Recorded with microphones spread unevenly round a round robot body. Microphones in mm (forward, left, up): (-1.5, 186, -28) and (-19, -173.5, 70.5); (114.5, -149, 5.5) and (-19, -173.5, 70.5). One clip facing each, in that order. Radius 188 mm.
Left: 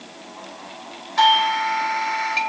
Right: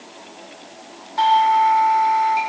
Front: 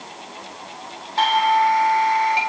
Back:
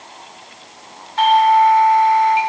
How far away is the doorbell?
About 4.5 m.